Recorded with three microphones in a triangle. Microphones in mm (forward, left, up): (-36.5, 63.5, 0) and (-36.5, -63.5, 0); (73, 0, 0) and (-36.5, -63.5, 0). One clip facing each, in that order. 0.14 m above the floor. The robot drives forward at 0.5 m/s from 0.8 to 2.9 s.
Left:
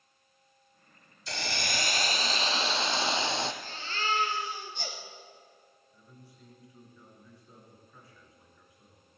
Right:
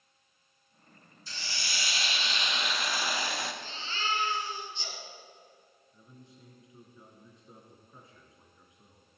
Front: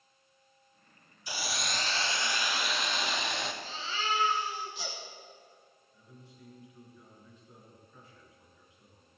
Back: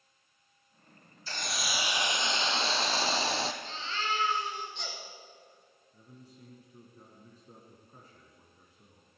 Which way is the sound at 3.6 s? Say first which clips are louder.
Left 2 dB, even; 115° left.